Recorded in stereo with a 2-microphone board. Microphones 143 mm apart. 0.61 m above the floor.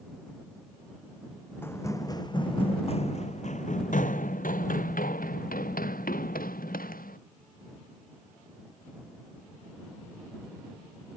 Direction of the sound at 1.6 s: 15° left (ahead or behind).